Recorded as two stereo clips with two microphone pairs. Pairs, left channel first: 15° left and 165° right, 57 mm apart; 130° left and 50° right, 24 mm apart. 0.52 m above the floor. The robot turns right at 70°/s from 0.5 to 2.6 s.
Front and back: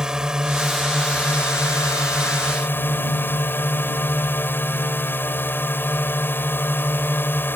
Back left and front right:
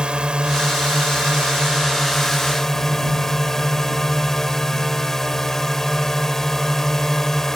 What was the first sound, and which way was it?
A drone, 90° right.